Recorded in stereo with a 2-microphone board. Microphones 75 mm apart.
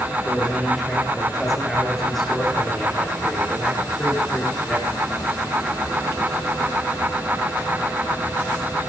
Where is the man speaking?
Centre (ahead or behind), 6 m; by 4.9 s 5° left (ahead or behind), 8.5 m.